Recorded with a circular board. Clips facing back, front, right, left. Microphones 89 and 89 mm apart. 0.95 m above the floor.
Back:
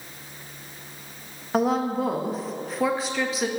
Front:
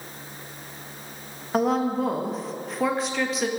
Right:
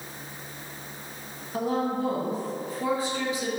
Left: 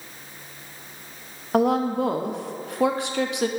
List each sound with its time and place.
1.5 s a woman speaking: 90° left, 0.9 m